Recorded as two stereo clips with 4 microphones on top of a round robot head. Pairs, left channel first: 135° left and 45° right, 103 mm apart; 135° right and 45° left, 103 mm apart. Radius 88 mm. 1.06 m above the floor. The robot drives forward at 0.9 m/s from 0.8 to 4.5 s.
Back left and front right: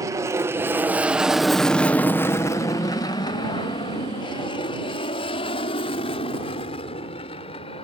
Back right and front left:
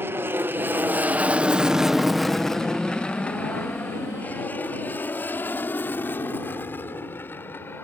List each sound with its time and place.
0.0 s an aircraft: 10° right; by 7.8 s 155° left